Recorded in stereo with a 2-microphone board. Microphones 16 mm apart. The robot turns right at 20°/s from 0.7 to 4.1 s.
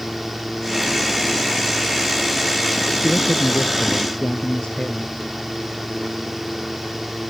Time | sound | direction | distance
3.0 | a man speaking | 80° left | ?